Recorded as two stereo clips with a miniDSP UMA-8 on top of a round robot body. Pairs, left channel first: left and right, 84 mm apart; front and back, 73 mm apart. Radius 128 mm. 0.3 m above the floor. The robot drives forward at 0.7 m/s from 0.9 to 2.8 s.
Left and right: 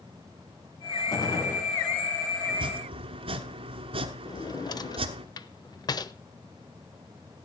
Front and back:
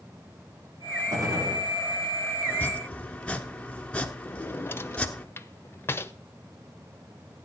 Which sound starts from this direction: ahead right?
Chopping, at 2.5 s.